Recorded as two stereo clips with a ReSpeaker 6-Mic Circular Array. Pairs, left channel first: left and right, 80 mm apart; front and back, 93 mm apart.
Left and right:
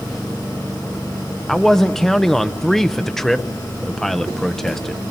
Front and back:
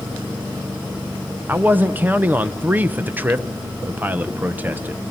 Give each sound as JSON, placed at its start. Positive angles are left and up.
{"t": 1.5, "sound": "a man speaking", "azimuth_deg": 165, "distance_m": 0.8}